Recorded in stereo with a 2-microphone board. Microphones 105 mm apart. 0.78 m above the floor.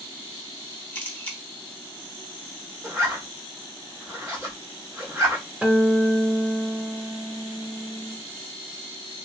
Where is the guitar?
15° right (ahead or behind), 0.8 m.